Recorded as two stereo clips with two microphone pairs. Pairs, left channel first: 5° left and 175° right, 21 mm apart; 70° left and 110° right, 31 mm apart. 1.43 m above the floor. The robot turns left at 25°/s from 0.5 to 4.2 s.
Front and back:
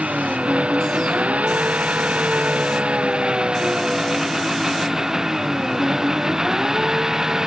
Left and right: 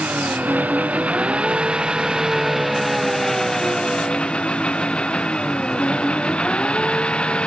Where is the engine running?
145° right; by 7.5 s 120° left.